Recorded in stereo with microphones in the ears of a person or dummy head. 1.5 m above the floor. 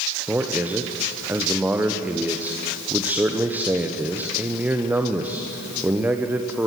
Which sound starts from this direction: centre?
A man speaking, at 0.3 s.